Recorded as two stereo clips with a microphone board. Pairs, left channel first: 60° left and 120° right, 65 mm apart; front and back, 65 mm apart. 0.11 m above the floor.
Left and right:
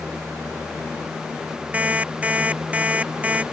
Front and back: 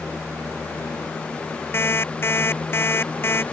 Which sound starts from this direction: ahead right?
An alarm clock, at 1.7 s.